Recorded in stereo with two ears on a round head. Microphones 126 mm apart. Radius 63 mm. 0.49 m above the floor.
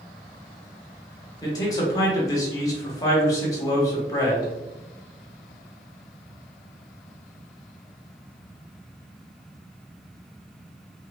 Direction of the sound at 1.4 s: 25° left (ahead or behind).